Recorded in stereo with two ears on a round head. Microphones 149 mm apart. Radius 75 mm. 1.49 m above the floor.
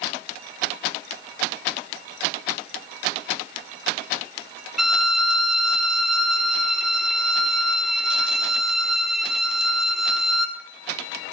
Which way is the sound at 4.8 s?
Centre (ahead or behind).